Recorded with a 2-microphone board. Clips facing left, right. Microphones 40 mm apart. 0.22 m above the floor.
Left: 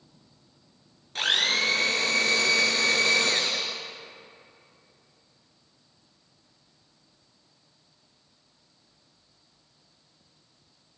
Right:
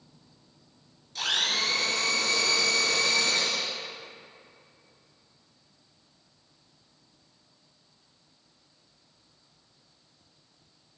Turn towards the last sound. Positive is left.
turn(degrees=50)  # may be behind; listen again after turning